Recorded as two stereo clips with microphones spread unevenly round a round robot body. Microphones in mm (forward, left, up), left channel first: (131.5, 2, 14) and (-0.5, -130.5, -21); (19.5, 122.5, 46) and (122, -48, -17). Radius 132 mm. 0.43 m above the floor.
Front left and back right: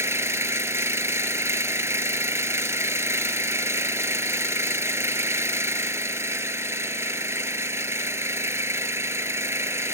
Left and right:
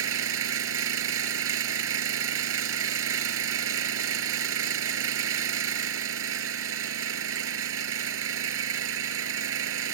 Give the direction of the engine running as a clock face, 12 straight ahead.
2 o'clock.